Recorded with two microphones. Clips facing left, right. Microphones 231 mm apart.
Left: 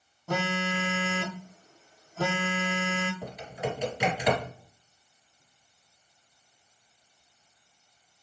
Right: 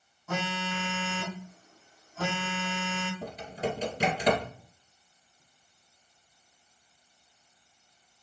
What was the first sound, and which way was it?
A phone buzzing, 35° left (ahead or behind).